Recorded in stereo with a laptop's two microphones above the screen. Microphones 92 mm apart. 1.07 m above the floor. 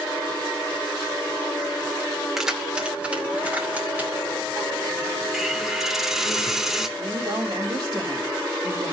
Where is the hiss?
5° right (ahead or behind), 1.1 m.